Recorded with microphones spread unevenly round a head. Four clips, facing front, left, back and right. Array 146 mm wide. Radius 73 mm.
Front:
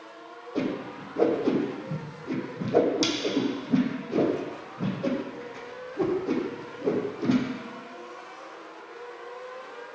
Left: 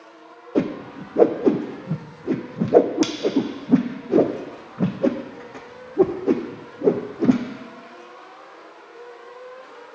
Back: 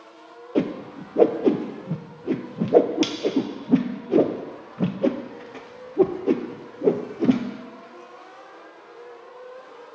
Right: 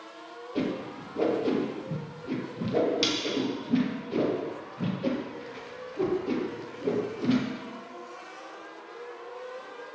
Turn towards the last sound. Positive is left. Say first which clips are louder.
# left 7 dB, back 5 dB
turn(degrees=120)